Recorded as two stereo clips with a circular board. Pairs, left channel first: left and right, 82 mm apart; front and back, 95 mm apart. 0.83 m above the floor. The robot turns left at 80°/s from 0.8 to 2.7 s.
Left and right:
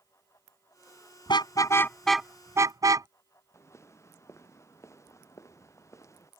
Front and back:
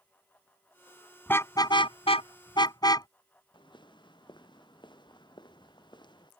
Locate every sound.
1.3 s a car horn: 70° left; by 3.1 s 45° right
3.5 s footsteps: 35° left